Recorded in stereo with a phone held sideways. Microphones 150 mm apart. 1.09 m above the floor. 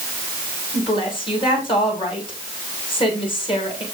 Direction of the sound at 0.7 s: 35° left (ahead or behind).